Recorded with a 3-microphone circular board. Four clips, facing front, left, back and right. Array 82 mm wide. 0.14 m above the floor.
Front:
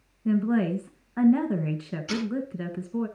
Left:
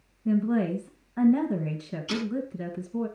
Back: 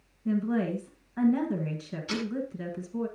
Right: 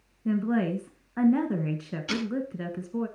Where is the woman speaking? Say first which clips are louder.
Left 1 dB, front 4 dB; 40° right, 1.3 m.